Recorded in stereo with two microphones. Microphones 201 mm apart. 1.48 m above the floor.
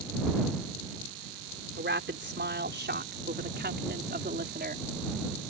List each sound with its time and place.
1.8 s a woman speaking: 70° right (ahead or behind); by 4.9 s 55° right (ahead or behind)